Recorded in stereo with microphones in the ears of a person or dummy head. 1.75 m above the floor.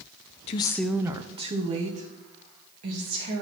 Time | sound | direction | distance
0.5 | a woman speaking | 40° left (ahead or behind) | 0.5 m